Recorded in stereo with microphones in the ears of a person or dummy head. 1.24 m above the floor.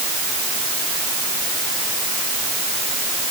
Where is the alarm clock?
I don't hear an alarm clock.